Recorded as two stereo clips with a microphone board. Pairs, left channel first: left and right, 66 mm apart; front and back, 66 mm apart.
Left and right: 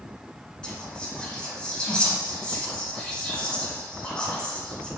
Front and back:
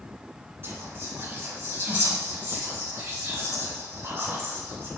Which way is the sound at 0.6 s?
160° left.